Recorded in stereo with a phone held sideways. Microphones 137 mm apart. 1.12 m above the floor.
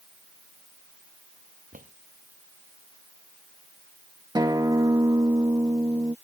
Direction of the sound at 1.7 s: 85° right.